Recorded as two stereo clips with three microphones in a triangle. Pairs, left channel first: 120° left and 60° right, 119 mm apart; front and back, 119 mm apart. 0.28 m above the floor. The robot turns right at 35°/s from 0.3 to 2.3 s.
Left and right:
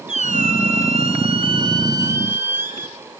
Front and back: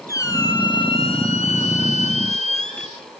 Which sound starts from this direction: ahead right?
A squeak, at 0.1 s.